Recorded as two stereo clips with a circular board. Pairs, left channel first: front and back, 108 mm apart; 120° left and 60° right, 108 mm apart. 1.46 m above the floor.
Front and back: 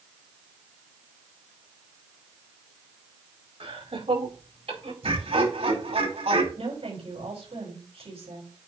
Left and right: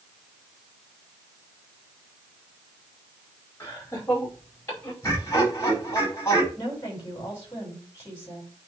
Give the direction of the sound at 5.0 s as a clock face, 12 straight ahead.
6 o'clock.